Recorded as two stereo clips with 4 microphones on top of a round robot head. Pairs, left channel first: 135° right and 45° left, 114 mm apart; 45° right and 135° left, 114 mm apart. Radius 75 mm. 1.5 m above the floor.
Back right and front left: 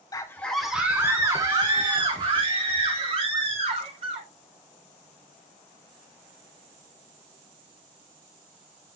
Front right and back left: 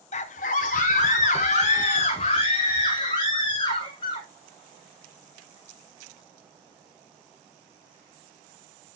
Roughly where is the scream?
Right.